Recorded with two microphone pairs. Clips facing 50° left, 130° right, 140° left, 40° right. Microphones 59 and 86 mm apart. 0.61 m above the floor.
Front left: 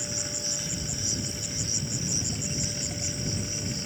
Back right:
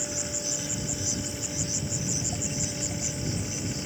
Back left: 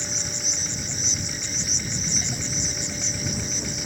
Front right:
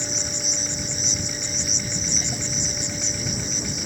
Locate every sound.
0.0 s an insect: 40° right